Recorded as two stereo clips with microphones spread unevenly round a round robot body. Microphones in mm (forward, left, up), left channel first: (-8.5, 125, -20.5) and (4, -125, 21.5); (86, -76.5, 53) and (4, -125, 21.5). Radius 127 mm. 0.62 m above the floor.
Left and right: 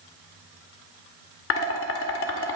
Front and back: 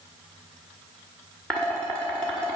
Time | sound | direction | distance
1.5 | dishes clattering | 125° left | 1.2 m